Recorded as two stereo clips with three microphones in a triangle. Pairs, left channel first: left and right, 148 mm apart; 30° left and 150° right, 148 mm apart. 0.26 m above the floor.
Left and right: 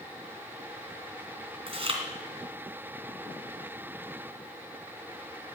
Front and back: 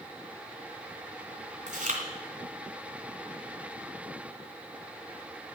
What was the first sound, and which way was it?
Chewing, 135° right.